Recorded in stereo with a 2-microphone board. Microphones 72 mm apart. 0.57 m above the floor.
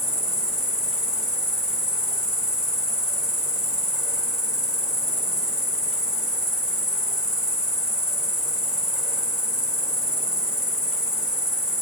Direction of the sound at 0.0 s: 10° right (ahead or behind).